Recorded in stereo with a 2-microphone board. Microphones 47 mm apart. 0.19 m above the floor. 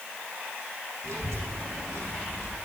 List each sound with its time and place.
1.0 s a child speaking: 65° right (ahead or behind), 6 m